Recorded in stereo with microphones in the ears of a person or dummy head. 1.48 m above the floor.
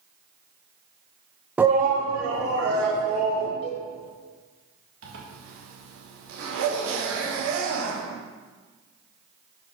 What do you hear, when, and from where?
1.6 s a shout: centre (ahead or behind), 0.5 m; by 3.5 s 85° right, 3 m
3.6 s a cowbell: 35° left (ahead or behind), 1.7 m
5.0 s a zipper: 80° right, 1.6 m